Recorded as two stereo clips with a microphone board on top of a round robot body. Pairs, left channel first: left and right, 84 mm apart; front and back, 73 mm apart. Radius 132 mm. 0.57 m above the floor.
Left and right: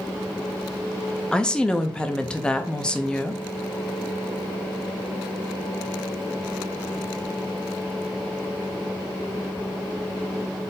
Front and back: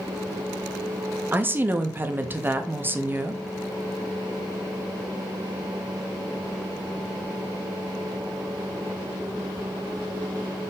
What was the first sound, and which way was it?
A woman speaking, 160° left.